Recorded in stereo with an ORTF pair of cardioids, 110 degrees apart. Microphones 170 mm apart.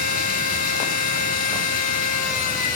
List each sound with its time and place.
0.0 s a machine running: 55° left, 4.5 m